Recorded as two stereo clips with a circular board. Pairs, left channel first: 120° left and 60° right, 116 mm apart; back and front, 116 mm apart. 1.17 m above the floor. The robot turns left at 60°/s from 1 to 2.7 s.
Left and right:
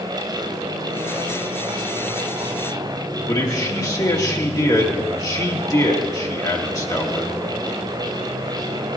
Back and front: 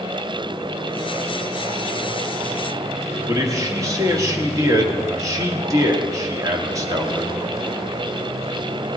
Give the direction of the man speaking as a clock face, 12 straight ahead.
10 o'clock.